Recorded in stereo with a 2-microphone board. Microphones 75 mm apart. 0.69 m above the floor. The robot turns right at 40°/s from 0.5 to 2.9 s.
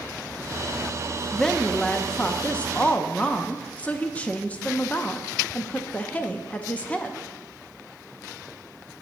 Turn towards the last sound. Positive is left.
turn(degrees=20)  # may be behind; listen again after turning